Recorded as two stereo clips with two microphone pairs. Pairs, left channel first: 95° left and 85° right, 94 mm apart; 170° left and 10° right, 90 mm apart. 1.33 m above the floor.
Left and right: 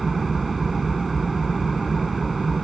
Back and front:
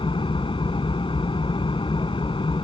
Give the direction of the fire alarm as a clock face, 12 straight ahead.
I don't hear a fire alarm.